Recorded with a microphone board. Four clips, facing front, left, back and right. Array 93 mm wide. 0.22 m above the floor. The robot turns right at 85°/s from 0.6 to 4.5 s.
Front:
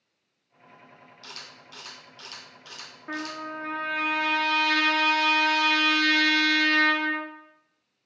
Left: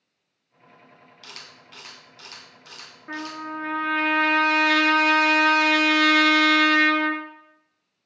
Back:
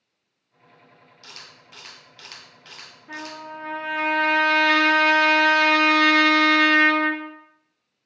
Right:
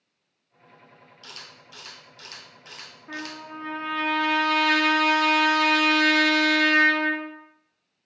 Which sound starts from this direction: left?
A camera shutter, at 1.2 s.